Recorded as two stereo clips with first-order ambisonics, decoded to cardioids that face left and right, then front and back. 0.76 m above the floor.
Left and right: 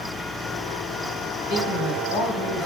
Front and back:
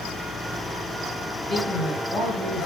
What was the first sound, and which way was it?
A man speaking, 80° left.